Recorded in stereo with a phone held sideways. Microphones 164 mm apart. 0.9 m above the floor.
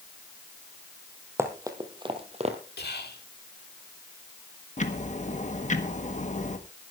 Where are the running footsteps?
15° right (ahead or behind), 2 m; by 2.6 s 40° right (ahead or behind), 1.8 m.